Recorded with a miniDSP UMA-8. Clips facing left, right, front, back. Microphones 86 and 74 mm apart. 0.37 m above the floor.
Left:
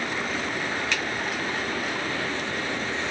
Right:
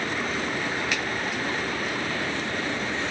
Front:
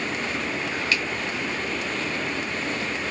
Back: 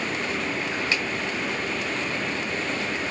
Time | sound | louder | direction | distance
0.9 | a finger snap | even, front 2 dB | 165° right | 1.1 m